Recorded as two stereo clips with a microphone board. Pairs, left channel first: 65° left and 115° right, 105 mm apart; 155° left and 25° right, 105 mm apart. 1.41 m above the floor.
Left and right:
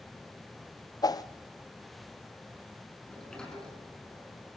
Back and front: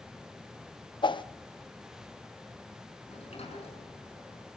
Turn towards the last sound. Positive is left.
turn(degrees=150)